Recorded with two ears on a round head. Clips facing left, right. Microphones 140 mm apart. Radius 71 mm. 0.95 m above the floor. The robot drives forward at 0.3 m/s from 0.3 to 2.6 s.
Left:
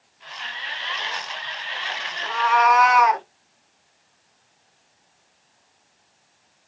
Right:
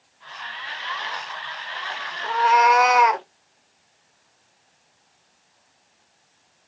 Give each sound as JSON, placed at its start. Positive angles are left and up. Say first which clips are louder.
{"t": 2.2, "sound": "a cat meowing", "louder": "right 1 dB", "side_deg": -25, "distance_m": 0.8}